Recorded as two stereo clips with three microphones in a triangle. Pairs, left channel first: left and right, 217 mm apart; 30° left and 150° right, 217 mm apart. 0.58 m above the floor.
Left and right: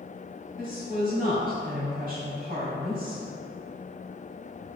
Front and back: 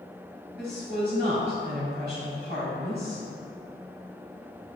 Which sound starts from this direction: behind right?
A woman speaking, at 0.6 s.